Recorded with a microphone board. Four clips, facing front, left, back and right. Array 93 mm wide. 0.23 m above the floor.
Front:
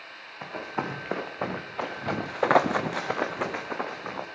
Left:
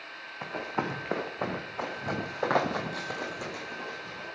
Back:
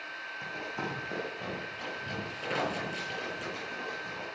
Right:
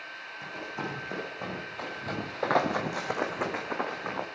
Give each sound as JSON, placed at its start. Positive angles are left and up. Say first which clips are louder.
{"t": 0.4, "sound": "running footsteps", "louder": "left 5 dB, front 6 dB", "azimuth_deg": 45, "distance_m": 2.0}